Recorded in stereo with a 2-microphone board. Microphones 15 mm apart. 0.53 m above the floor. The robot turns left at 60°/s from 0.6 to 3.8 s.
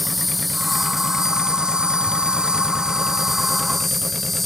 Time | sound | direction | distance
0.0 | an insect | straight ahead | ?